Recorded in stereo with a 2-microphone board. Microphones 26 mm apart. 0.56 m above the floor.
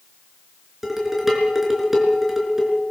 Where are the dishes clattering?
10° right (ahead or behind), 4.5 m.